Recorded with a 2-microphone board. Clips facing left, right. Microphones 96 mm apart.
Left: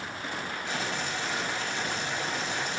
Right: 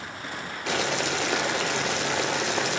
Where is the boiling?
80° right, 0.6 m.